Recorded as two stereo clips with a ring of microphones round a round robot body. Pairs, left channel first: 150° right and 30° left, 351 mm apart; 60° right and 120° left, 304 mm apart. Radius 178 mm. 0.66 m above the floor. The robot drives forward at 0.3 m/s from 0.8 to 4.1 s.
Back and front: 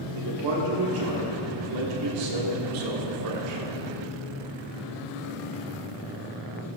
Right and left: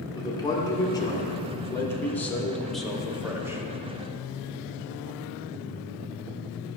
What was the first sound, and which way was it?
A man speaking, 15° left.